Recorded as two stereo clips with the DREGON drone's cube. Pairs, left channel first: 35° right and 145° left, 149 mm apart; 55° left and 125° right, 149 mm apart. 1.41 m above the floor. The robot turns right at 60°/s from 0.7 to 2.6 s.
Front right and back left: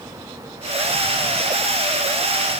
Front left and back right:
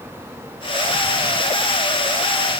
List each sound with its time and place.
Only background noise.